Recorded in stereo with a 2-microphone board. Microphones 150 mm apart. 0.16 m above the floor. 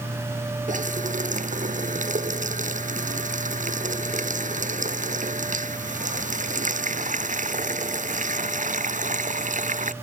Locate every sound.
0.7 s a running tap: 60° right (ahead or behind)